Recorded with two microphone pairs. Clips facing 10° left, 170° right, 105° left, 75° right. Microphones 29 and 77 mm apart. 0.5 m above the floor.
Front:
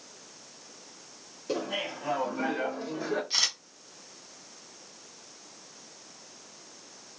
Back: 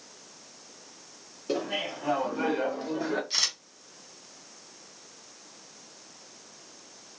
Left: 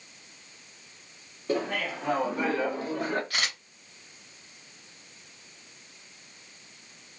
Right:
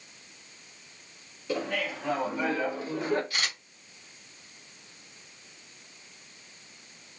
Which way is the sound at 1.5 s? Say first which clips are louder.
Back 2 dB, left 2 dB; 130° left.